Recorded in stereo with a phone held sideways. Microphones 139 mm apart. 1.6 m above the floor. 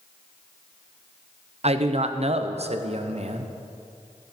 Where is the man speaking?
55° right (ahead or behind), 0.6 m.